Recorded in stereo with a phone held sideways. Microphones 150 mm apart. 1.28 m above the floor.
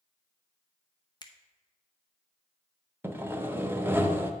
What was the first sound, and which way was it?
A finger snap, 30° left (ahead or behind).